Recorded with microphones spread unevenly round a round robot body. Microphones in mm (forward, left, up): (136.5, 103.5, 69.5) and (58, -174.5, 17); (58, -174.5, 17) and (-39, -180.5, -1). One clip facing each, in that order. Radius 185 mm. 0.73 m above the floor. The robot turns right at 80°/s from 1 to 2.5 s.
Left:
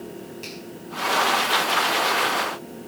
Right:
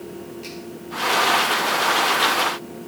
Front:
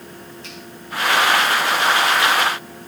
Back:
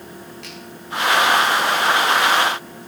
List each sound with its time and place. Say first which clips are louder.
0.4 s a finger snap: right 3 dB, back 1 dB; 145° left, 6 m